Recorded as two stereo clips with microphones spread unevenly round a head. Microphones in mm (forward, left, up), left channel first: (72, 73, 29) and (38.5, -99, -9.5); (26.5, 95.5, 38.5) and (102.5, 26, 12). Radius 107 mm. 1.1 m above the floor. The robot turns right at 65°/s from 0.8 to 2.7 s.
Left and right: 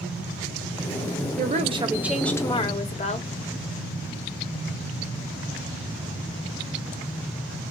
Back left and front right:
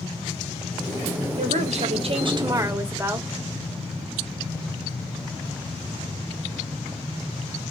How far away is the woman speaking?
About 1.1 m.